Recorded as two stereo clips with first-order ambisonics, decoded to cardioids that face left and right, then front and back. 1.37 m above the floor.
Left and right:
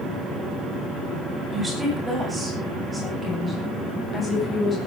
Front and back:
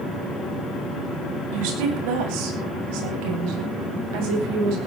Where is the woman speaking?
170° right, 9 m; by 4.8 s 160° left, 8 m.